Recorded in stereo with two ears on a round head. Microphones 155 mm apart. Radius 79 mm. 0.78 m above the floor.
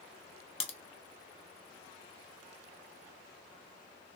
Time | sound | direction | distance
0.6 | a crack | 40° left (ahead or behind) | 0.7 m